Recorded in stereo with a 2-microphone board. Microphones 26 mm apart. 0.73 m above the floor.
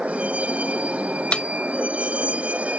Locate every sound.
0.0 s a vehicle: 50° right (ahead or behind)
1.3 s a snare drum: 50° left (ahead or behind)